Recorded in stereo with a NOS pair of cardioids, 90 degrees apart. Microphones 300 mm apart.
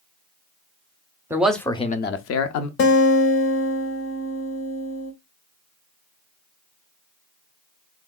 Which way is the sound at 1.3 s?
10° right.